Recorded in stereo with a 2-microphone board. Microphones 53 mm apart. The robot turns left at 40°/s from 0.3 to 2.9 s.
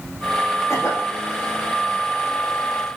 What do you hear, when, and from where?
0.7 s a cough: 75° left (ahead or behind), 7.5 m